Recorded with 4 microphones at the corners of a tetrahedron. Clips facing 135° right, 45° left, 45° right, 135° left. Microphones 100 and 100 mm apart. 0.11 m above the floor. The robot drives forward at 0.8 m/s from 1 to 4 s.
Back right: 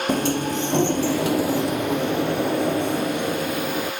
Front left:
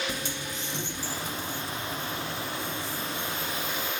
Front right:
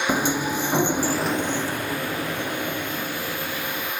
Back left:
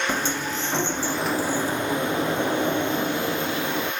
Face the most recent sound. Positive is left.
turn(degrees=-170)